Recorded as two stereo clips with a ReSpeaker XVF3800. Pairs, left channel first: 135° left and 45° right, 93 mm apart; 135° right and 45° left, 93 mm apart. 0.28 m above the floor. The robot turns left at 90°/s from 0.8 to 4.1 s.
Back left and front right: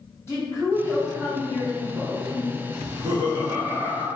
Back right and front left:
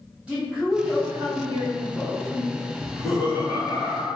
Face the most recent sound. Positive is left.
turn(degrees=-130)